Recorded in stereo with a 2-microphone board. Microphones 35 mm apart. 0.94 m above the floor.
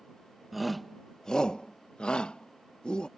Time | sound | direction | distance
0.5 | a shout | centre (ahead or behind) | ?